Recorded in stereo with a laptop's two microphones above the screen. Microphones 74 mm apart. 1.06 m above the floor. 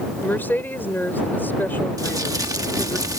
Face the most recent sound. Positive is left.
turn(degrees=-55)  # may be behind; listen again after turning